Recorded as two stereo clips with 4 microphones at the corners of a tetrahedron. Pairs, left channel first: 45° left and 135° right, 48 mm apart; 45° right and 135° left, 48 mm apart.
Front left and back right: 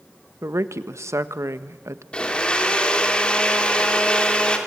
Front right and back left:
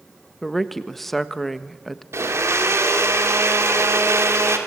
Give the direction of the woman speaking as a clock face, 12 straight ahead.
4 o'clock.